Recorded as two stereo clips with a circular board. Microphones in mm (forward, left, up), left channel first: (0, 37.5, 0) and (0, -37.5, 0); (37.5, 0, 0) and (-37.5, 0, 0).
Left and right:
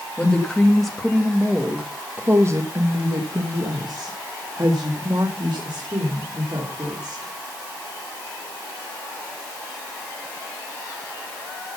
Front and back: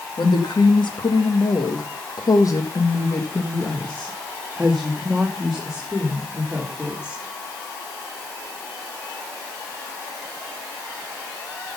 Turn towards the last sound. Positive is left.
turn(degrees=-105)